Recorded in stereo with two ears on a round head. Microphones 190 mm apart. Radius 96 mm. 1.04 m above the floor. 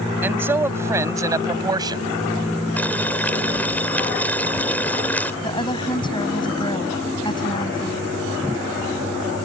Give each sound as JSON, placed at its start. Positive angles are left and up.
{"t": 0.2, "sound": "a man speaking", "side_deg": -10}
{"t": 2.8, "sound": "boiling", "side_deg": 10}
{"t": 5.4, "sound": "a woman speaking", "side_deg": 25}